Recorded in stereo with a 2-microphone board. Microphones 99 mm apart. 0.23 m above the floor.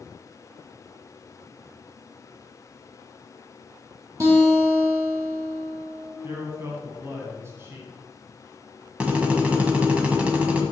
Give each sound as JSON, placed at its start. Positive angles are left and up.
{"t": 4.2, "sound": "a guitar", "side_deg": -35, "distance_m": 3.0}
{"t": 6.2, "sound": "a man speaking", "side_deg": -30, "distance_m": 1.6}
{"t": 9.0, "sound": "a drill", "side_deg": -15, "distance_m": 1.4}